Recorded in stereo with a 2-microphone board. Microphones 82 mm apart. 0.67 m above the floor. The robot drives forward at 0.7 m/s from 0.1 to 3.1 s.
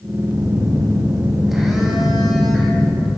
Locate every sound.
0.3 s a phone buzzing: 5° right (ahead or behind), 1.4 m